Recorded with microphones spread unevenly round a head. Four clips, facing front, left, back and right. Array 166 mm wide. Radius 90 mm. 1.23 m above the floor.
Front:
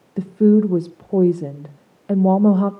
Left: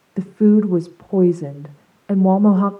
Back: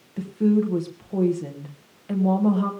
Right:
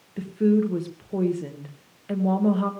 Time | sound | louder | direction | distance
0.2 | a woman speaking | left 7 dB, front 6 dB | 40° left | 0.9 m